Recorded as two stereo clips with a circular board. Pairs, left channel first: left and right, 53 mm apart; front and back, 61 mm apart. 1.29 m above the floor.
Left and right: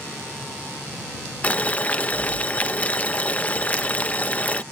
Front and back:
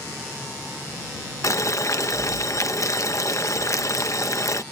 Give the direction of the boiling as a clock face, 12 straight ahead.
11 o'clock.